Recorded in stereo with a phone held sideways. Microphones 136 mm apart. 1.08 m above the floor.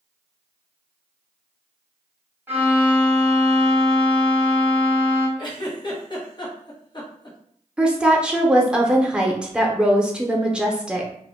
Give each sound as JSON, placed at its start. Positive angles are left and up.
{"t": 2.5, "sound": "a violin", "side_deg": -15, "distance_m": 1.1}
{"t": 5.4, "sound": "a giggle", "side_deg": 35, "distance_m": 0.8}
{"t": 7.8, "sound": "a woman speaking", "side_deg": -5, "distance_m": 0.5}